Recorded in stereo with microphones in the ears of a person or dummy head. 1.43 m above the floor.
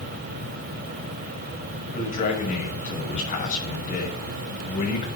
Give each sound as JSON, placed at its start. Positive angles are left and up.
{"t": 1.9, "sound": "a man speaking", "side_deg": 40, "distance_m": 6.0}